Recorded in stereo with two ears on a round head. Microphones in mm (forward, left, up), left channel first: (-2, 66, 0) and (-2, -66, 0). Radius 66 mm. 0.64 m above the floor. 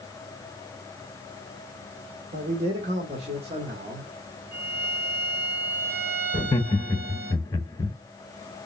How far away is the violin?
About 4 m.